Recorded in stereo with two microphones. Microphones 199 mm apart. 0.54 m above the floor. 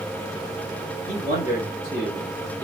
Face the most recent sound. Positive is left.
turn(degrees=45)  # may be behind; listen again after turning